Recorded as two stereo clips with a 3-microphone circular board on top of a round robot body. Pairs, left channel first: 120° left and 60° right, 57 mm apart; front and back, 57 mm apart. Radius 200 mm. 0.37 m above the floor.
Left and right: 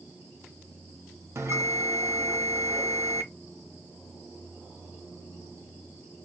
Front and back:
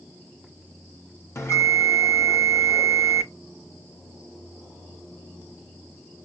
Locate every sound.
1.4 s a bell: 30° right, 2.5 m